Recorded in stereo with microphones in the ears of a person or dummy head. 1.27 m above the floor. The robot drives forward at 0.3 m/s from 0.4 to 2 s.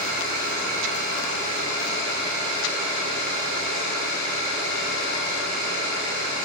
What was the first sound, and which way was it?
An engine running, 50° right (ahead or behind).